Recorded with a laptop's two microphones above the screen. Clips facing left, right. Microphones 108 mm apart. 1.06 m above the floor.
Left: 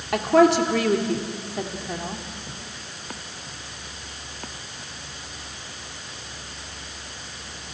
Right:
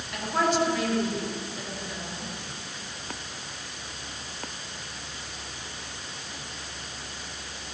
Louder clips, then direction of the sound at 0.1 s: Left 9 dB; 80° left.